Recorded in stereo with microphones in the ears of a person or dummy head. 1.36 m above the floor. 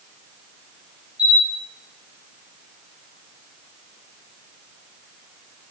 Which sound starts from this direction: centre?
A camera shutter, at 1.2 s.